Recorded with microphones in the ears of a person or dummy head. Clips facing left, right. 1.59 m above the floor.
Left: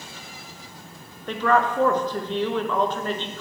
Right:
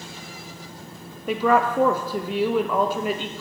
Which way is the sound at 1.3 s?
10° right (ahead or behind).